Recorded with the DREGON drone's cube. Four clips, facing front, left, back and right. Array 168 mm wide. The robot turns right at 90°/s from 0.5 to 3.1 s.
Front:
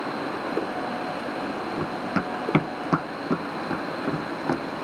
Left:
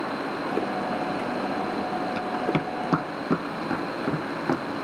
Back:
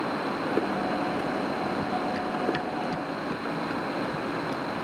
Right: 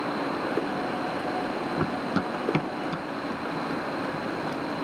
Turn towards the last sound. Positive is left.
turn(degrees=50)